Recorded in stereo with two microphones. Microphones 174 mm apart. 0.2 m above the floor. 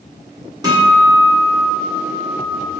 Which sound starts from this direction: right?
A guitar, at 0.6 s.